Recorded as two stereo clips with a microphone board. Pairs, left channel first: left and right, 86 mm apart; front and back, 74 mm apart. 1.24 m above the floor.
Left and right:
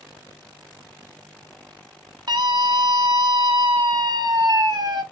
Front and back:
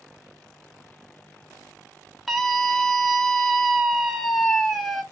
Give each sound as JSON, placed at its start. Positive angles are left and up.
{"t": 2.3, "sound": "a scream", "azimuth_deg": -90, "distance_m": 0.7}